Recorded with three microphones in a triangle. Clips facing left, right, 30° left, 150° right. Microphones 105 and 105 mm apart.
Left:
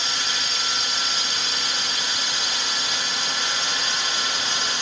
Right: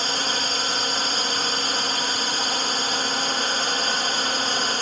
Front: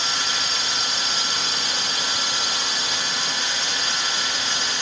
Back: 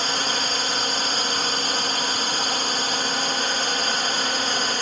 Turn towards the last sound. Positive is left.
turn(degrees=-120)